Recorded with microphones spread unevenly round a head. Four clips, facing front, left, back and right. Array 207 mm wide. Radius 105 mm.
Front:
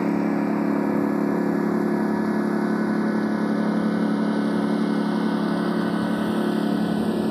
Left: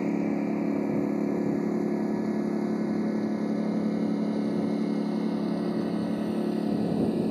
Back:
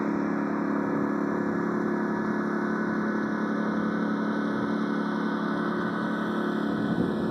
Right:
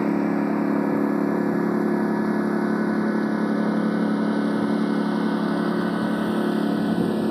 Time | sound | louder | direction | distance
0.0 | a lawn mower | right 5 dB, front 5 dB | 95° right | ?